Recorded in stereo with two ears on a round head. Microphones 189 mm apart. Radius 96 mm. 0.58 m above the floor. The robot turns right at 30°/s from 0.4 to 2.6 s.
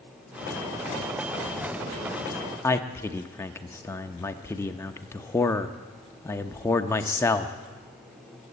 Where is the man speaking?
10° left (ahead or behind), 0.7 m.